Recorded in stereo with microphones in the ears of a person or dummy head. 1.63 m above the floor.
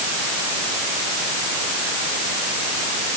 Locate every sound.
Only background noise.